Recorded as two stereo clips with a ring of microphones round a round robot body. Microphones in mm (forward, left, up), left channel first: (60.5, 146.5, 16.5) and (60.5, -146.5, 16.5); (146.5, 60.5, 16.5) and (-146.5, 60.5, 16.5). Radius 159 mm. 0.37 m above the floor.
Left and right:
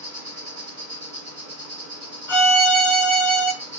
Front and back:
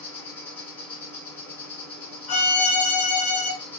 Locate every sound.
0.0 s an insect: 85° right, 2.5 m
2.3 s a violin: 5° right, 1.7 m